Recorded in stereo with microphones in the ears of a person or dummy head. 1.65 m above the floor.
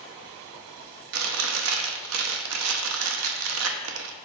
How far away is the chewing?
About 1.0 m.